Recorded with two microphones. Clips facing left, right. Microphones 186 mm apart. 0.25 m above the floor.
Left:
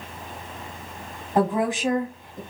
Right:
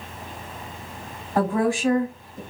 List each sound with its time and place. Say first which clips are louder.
1.4 s a woman speaking: even; 20° left (ahead or behind), 1.1 m